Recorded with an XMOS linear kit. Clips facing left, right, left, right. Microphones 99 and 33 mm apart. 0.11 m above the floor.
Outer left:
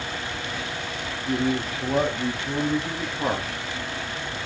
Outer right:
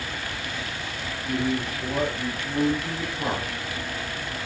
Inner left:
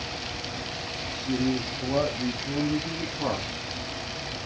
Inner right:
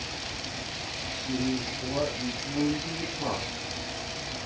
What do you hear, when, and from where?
1.2 s a man speaking: 20° left (ahead or behind), 2.5 m; by 3.5 s 10° left (ahead or behind), 1.5 m